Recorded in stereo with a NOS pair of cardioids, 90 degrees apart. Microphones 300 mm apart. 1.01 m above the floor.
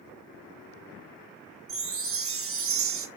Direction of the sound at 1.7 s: 45° right.